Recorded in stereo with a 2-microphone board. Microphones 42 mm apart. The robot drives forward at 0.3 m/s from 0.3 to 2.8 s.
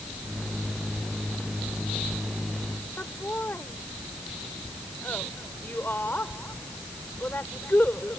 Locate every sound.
3.0 s laughter: 50° left (ahead or behind)